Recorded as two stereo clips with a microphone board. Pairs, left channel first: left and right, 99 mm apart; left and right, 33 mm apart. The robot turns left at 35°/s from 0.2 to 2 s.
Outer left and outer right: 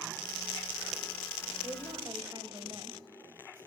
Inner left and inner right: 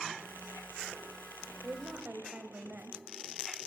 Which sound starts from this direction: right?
A woman speaking, at 1.6 s.